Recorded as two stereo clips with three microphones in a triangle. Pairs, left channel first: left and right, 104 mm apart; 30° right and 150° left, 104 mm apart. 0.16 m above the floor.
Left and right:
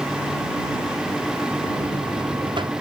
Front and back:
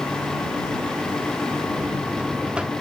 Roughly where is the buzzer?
Behind right.